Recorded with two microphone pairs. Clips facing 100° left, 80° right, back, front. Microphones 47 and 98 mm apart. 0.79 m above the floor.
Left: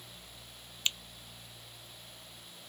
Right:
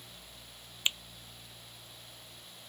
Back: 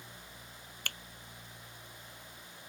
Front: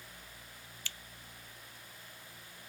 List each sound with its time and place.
0.8 s a finger snap: 150° right